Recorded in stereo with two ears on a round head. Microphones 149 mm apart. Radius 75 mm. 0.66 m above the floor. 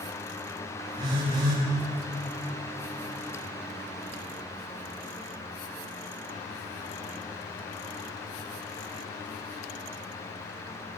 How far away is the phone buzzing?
About 5 m.